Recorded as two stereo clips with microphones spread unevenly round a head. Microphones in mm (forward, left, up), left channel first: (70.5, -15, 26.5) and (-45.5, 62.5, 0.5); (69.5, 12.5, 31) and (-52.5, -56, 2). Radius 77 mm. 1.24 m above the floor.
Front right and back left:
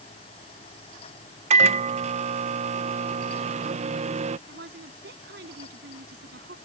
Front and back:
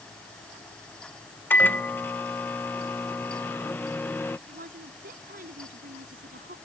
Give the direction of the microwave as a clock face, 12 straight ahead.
8 o'clock.